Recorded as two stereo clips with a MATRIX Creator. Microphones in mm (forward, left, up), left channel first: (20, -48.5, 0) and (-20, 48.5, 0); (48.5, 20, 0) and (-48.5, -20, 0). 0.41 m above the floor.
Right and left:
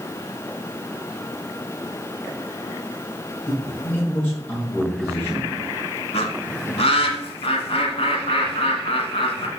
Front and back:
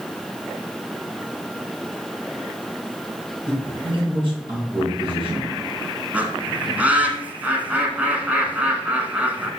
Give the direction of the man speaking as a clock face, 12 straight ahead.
5 o'clock.